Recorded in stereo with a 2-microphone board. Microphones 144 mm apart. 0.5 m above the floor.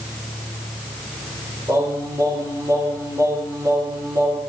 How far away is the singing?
About 8 m.